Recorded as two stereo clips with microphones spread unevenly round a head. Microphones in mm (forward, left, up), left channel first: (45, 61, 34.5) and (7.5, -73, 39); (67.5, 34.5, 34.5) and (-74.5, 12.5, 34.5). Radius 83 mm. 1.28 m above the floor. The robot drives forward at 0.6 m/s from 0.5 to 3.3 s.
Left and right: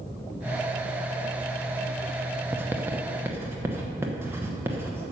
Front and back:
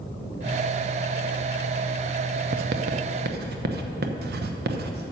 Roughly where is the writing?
Behind.